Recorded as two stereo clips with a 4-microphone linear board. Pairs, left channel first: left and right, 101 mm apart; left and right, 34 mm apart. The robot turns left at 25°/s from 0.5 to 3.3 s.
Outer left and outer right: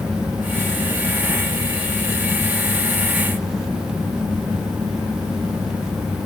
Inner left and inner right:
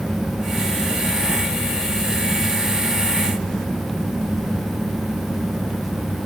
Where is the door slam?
I don't hear a door slam.